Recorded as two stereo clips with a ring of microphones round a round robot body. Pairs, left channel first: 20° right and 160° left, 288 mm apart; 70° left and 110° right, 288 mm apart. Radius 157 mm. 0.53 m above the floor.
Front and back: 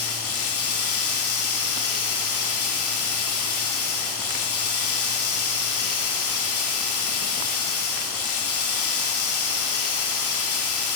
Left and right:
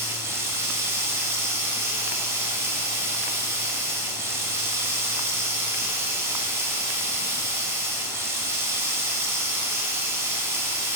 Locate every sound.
0.0 s running water: 35° right, 1.1 m